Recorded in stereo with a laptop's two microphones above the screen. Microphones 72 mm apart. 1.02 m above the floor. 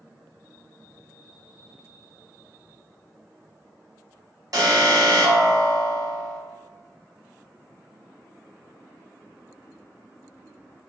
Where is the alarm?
60° right (ahead or behind), 1.0 m.